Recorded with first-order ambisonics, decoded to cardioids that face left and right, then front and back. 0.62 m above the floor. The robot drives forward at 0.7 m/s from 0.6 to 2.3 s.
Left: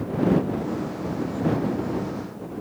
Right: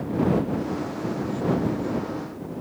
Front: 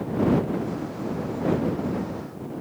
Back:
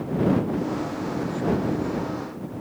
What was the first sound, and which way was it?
Only background noise.